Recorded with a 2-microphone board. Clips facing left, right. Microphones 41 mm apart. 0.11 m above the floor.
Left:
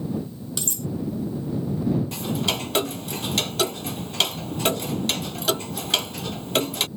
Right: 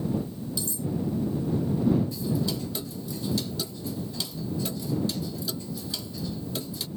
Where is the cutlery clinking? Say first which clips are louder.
Left 2 dB; 70° left (ahead or behind).